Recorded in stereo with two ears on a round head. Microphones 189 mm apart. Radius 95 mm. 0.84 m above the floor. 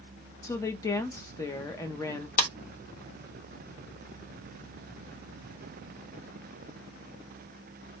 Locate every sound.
0.4 s a woman speaking: 15° left (ahead or behind), 0.6 m
2.4 s a clap: 40° left (ahead or behind), 0.9 m